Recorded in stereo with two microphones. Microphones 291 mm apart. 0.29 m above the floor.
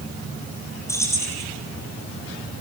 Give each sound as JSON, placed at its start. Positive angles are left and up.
{"t": 0.9, "sound": "keys jangling", "side_deg": 10, "distance_m": 4.5}